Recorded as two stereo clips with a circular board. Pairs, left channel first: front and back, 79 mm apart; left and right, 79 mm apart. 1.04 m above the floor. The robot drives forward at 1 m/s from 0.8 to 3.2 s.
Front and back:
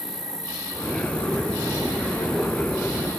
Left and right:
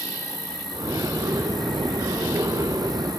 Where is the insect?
155° left, 8.5 m; by 3.2 s 160° left, 11 m.